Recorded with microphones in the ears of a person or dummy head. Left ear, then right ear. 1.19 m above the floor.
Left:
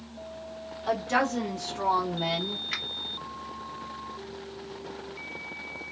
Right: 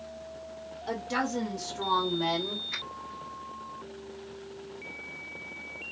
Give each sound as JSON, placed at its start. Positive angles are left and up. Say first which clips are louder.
{"t": 0.9, "sound": "a woman speaking", "louder": "left 5 dB", "side_deg": 60, "distance_m": 1.8}
{"t": 2.7, "sound": "a finger snap", "louder": "left 3 dB", "side_deg": 50, "distance_m": 1.9}